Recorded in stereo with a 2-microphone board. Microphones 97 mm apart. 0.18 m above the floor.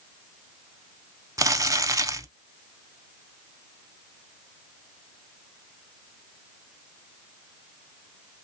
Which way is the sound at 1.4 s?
35° right (ahead or behind).